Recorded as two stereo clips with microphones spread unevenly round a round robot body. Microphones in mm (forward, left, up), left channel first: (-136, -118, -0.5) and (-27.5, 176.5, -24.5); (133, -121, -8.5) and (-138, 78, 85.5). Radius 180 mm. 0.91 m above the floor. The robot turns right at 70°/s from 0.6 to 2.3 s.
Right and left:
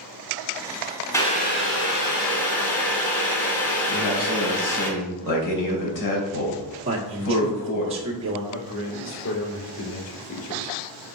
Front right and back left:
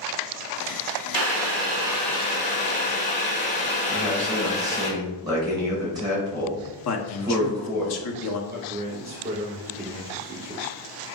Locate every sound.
1.1 s boiling: 170° left, 2.5 m; by 4.9 s 110° right, 2.5 m
3.9 s a man speaking: 135° right, 4.5 m
6.8 s a man speaking: 5° right, 1.5 m
8.5 s a man speaking: 150° right, 3.5 m